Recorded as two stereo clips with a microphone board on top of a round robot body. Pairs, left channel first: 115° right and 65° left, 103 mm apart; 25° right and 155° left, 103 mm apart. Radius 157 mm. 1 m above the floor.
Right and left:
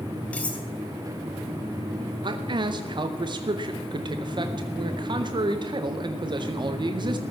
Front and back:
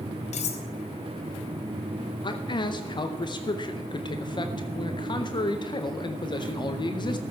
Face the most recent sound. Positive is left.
turn(degrees=20)